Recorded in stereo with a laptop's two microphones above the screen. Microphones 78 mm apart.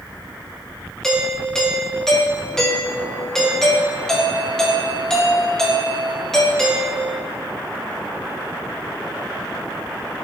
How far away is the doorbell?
About 1.3 m.